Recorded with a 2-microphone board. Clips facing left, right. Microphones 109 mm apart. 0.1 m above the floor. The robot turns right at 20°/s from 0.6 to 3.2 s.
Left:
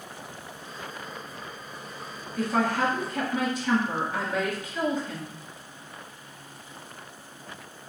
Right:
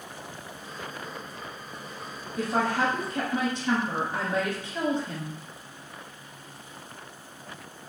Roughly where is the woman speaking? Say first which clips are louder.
Left 1 dB; right.